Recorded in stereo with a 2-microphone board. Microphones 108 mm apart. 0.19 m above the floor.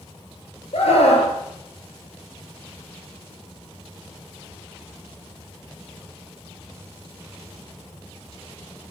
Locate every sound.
0.7 s a scream: 70° left (ahead or behind), 3.5 m